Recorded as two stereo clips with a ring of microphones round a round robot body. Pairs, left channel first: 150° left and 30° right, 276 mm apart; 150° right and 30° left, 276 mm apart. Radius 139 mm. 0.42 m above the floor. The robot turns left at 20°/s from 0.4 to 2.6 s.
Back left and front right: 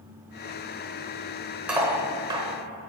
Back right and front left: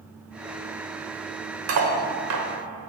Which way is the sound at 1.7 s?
55° left.